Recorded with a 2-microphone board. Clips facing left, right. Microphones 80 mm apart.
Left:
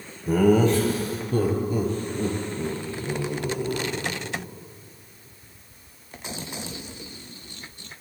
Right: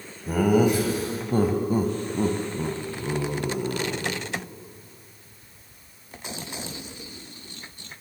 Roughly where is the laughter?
Centre.